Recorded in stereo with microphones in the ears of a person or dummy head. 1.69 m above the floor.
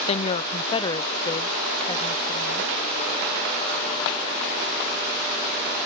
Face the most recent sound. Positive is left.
turn(degrees=25)  # may be behind; listen again after turning